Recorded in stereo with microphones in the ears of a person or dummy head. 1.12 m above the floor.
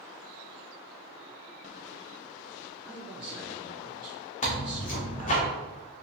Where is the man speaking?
25° right (ahead or behind), 1.6 m.